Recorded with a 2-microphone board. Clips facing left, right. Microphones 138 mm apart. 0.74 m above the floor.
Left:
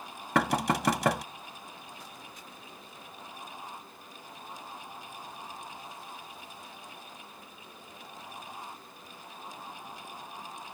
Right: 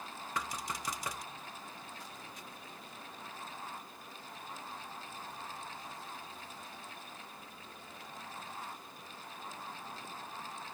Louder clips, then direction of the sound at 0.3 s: Left 14 dB; 80° left.